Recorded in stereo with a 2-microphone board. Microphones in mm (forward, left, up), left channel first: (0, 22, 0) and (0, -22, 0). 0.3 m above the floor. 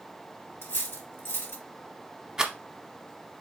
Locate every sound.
0.6 s cutlery clinking: 55° left (ahead or behind), 1.3 m
2.4 s a rattle: 15° right (ahead or behind), 0.7 m